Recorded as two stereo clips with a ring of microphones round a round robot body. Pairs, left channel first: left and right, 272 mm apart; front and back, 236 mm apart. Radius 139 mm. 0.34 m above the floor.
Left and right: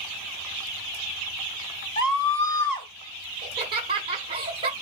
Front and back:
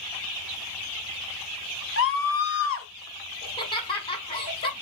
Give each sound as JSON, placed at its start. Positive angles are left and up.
{"t": 2.0, "sound": "a scream", "azimuth_deg": 20, "distance_m": 1.8}
{"t": 3.4, "sound": "laughter", "azimuth_deg": -40, "distance_m": 1.3}